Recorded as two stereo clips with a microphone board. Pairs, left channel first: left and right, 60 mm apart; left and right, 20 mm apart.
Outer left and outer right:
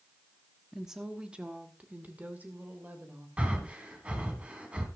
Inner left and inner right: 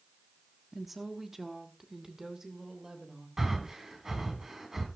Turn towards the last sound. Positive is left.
turn(degrees=-20)  # may be behind; listen again after turning